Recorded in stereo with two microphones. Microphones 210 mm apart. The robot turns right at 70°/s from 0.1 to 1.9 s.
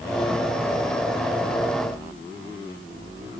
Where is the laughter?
I don't hear laughter.